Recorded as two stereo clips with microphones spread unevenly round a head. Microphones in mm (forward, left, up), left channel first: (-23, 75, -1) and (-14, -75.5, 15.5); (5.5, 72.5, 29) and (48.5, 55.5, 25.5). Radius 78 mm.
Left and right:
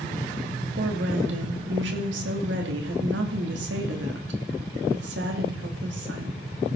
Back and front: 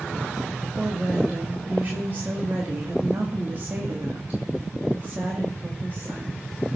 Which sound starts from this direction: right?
A woman speaking, at 0.8 s.